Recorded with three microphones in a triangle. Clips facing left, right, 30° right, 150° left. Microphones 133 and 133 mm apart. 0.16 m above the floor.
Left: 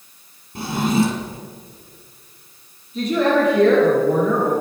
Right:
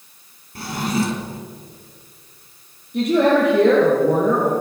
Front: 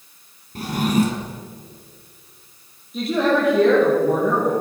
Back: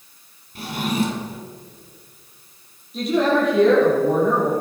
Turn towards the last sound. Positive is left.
turn(degrees=-115)